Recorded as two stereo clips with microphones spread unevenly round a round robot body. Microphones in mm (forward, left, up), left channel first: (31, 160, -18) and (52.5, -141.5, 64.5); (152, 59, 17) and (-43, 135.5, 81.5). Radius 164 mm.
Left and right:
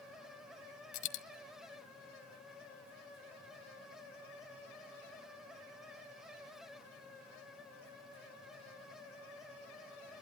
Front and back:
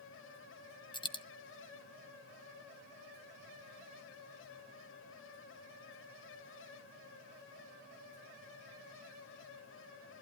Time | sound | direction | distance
0.9 | a dropped coin | 55° left | 1.4 m